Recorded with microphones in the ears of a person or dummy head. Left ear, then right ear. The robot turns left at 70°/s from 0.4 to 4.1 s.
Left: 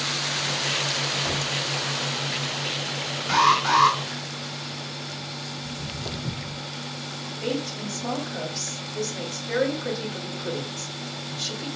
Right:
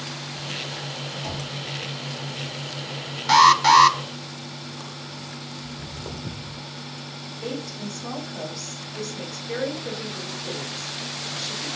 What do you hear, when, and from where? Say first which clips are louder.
1.2 s knocking: left 6 dB; 55° right (ahead or behind), 2.5 m; by 1.5 s 70° right (ahead or behind), 2.5 m
3.3 s an alarm: right 6 dB; 55° right, 0.5 m; by 4.0 s 105° right, 0.5 m
5.6 s footsteps: left 3 dB; 30° left (ahead or behind), 1.9 m; by 6.6 s 15° left (ahead or behind), 1.8 m
7.4 s a woman speaking: left 3 dB; 50° left (ahead or behind), 2 m